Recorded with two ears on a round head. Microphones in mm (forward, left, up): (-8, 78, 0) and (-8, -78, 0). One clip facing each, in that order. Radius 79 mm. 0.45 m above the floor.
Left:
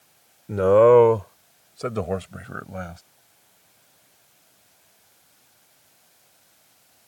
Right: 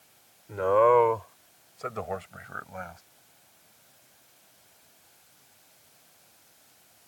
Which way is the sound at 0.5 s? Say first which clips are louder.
Left 7 dB; 50° left (ahead or behind).